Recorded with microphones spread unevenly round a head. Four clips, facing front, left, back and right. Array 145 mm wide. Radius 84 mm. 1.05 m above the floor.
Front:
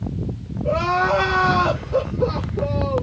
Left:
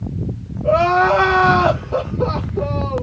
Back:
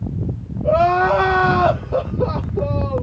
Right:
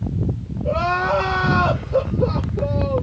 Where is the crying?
145° left, 1.0 m.